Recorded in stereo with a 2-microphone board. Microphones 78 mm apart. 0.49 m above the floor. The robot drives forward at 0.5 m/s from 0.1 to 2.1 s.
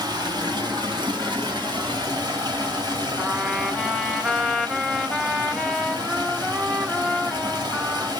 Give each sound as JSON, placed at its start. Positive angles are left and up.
{"t": 0.0, "sound": "running water", "side_deg": -65, "distance_m": 1.3}
{"t": 3.2, "sound": "a trumpet", "side_deg": -5, "distance_m": 0.7}